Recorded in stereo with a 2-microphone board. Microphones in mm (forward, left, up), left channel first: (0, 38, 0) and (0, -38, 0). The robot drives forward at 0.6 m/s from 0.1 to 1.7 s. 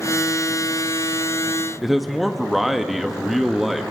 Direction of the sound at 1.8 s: 5° right (ahead or behind).